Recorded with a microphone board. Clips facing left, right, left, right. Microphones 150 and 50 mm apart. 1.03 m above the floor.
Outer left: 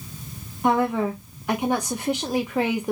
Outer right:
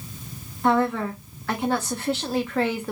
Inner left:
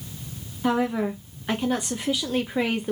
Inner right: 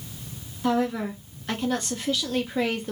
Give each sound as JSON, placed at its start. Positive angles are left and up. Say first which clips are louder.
{"t": 0.6, "sound": "a woman speaking", "louder": "even, inner left 1 dB", "side_deg": 15, "distance_m": 0.6}